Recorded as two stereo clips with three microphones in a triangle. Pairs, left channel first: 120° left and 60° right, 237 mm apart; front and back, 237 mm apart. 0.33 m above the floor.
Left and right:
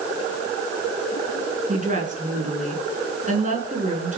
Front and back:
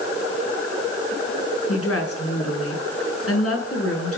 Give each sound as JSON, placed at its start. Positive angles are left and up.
{"t": 1.7, "sound": "a woman speaking", "azimuth_deg": 0, "distance_m": 4.5}